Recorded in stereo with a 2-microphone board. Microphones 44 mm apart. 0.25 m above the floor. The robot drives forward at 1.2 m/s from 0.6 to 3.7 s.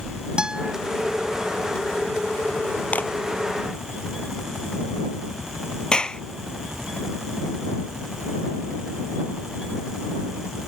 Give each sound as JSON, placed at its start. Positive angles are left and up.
{"t": 0.4, "sound": "a guitar", "side_deg": -20}
{"t": 2.9, "sound": "a clap", "side_deg": 35}
{"t": 5.9, "sound": "a clap", "side_deg": 20}